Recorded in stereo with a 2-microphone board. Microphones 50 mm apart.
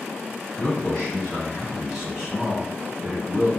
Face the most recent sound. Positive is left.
turn(degrees=-35)  # may be behind; listen again after turning